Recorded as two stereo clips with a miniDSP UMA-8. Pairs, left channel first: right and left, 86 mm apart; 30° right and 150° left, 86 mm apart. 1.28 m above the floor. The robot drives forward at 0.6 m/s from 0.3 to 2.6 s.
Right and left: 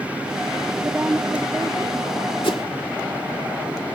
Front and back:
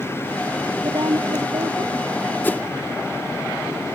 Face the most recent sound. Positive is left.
turn(degrees=-100)